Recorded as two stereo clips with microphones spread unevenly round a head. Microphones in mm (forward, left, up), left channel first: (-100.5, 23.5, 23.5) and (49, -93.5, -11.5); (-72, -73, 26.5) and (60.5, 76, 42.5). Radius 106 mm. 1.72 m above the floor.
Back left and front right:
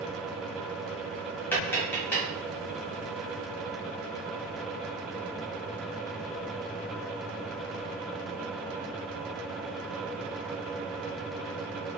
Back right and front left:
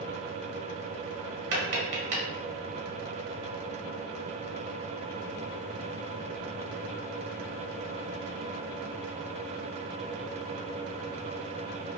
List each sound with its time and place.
1.5 s tapping: 70° left, 1.0 m